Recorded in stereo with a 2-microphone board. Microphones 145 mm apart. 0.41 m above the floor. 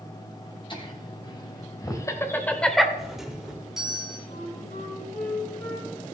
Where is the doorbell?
5° right (ahead or behind), 1.6 m.